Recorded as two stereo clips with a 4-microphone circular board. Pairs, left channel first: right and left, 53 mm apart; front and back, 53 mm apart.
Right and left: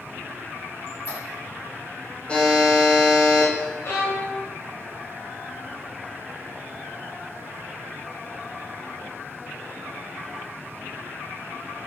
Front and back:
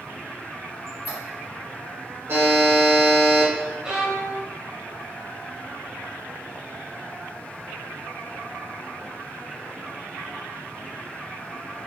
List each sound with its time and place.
0.9 s a squeak: 130° right, 1.8 m
2.3 s a buzzer: 155° right, 1.2 m
3.8 s a violin: 105° right, 0.9 m